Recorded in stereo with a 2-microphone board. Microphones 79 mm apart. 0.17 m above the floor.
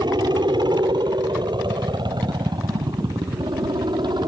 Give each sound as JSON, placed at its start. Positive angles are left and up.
{"t": 0.0, "sound": "a helicopter", "side_deg": -65}